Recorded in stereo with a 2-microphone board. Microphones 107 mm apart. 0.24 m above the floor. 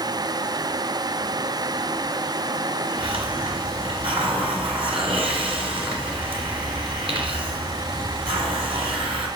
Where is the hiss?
60° right (ahead or behind), 2.5 m.